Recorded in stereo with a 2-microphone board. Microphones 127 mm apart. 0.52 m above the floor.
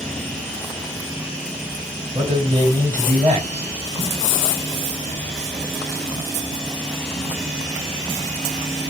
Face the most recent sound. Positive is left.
turn(degrees=-50)  # may be behind; listen again after turning